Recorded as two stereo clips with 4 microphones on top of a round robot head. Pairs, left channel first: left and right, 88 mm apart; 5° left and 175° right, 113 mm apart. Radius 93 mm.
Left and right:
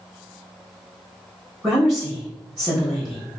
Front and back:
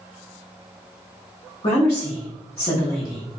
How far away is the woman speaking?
About 1.2 m.